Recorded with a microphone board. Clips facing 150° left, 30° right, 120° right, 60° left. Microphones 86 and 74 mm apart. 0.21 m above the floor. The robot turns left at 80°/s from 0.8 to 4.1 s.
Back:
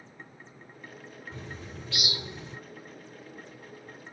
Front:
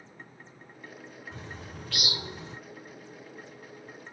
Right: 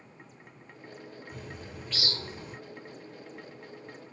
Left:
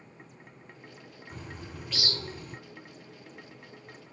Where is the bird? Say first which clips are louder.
Back 2 dB, left 3 dB; 25° left, 1.8 m; by 2.6 s 75° right, 1.8 m.